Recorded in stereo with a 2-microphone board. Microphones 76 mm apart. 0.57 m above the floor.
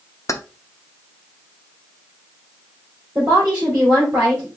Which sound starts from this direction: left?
Keys jangling, at 0.3 s.